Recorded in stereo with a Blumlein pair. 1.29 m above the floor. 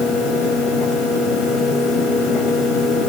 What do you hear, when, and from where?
0.0 s a fan: 35° left, 3.5 m